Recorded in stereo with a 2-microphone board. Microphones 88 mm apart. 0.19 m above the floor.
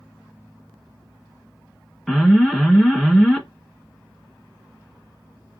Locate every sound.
2.1 s an alarm: 5° left (ahead or behind), 1.1 m